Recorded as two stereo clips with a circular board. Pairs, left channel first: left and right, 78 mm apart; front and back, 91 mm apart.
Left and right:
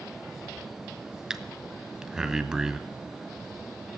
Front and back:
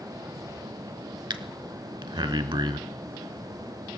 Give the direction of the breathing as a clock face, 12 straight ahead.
6 o'clock.